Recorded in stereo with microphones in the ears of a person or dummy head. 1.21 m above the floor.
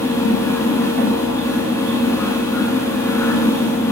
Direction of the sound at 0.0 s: 5° left (ahead or behind).